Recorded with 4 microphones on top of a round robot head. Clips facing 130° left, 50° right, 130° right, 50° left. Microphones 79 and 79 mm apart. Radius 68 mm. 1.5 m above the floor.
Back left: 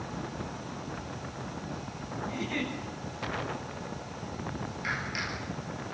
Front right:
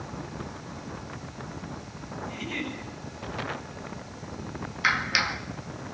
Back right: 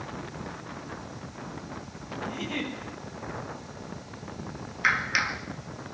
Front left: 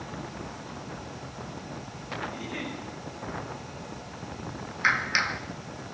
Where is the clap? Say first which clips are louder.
Front right 10 dB, even; 35° right, 2 m.